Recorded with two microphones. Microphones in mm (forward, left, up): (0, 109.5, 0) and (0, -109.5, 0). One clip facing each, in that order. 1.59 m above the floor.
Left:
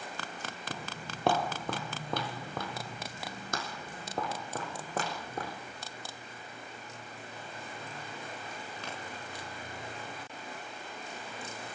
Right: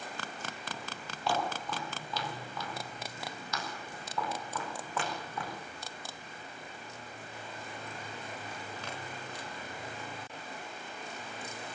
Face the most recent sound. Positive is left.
turn(degrees=40)  # may be behind; listen again after turning